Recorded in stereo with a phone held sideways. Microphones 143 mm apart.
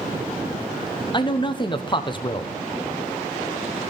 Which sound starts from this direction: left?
A man speaking, at 1.1 s.